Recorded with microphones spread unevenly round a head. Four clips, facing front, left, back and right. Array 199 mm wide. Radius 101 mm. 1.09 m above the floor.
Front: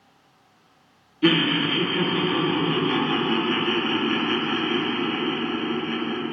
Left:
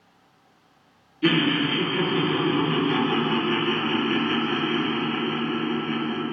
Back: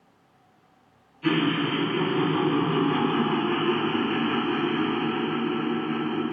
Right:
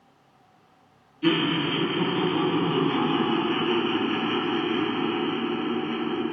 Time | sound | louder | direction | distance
1.2 | laughter | left 2 dB, front 3 dB | 20° left | 2.5 m